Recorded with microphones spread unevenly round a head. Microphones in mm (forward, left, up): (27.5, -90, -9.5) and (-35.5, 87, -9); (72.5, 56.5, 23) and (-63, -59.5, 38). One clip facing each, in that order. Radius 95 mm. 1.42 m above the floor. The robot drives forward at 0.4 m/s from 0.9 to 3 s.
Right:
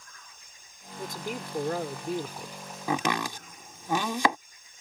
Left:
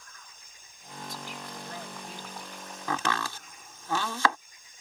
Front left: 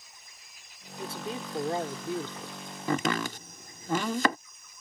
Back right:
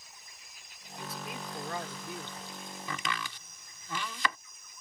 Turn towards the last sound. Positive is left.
turn(degrees=0)